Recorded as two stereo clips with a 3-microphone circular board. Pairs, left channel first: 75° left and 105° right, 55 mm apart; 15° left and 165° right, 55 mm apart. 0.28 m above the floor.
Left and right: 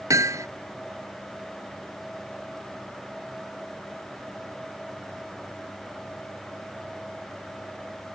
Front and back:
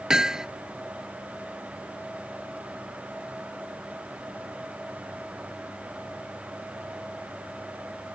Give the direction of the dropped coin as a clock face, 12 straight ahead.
No dropped coin in this recording.